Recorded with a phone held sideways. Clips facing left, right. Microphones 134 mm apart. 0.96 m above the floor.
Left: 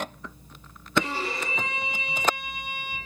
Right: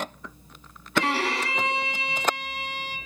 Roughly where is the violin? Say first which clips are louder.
Right 2 dB; right.